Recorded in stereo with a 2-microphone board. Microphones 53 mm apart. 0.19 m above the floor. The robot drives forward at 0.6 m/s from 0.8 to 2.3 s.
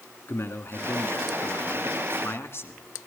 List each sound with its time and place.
0.3 s a man speaking: 50° left (ahead or behind), 2.5 m